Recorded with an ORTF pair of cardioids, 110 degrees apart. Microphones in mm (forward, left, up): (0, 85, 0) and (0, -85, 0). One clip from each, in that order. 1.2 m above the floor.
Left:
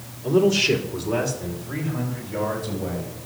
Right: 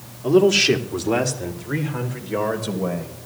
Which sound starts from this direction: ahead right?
A man speaking, at 0.2 s.